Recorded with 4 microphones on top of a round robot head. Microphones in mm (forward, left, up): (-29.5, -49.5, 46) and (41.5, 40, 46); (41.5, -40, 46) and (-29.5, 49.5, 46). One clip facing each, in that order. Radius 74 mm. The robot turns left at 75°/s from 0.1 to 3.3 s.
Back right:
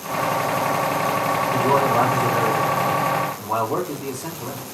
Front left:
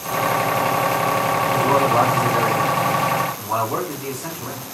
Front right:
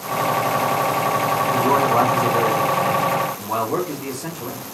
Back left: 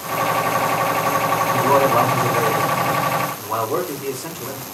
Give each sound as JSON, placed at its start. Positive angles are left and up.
{"t": 1.5, "sound": "a man speaking", "azimuth_deg": 90, "distance_m": 1.5}